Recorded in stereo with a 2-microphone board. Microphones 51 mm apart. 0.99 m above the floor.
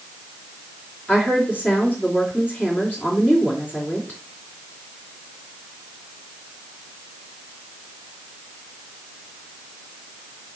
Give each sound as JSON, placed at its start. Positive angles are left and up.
{"t": 1.1, "sound": "a woman speaking", "side_deg": 40, "distance_m": 3.5}